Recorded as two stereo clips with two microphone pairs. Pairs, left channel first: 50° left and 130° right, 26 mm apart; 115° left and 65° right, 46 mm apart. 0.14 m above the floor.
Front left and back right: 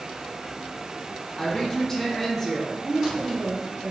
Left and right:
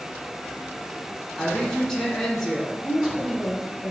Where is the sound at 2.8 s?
150° right, 2.0 m.